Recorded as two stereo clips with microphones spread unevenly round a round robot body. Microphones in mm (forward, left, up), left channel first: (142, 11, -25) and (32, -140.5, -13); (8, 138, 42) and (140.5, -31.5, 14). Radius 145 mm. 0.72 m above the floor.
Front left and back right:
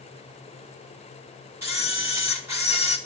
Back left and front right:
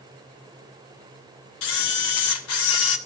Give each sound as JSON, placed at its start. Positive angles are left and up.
{"t": 1.6, "sound": "a camera shutter", "azimuth_deg": 150, "distance_m": 1.1}